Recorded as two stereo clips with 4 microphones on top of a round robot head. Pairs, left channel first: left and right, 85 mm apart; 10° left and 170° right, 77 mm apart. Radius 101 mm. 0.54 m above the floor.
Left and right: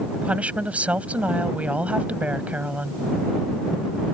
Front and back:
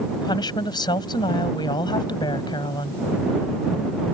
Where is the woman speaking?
15° right.